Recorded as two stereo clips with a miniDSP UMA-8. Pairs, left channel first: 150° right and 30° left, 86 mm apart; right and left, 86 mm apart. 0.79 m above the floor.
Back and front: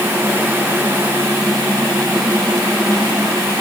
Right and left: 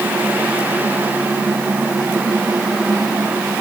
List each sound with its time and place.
Only background noise.